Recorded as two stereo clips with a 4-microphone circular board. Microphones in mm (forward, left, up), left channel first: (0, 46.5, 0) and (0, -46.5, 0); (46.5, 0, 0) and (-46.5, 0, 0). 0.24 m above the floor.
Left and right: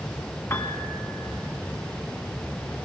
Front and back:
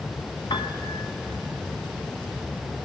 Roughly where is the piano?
Ahead left.